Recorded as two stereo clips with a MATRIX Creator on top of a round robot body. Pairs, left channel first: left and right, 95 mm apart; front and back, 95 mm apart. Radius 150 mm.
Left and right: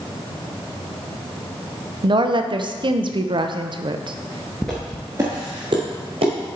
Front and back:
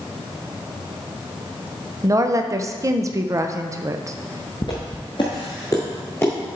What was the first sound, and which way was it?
A woman speaking, 125° right.